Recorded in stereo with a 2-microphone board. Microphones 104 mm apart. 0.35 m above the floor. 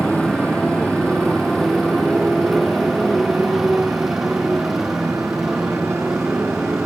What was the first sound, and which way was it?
A motorcycle, 5° left (ahead or behind).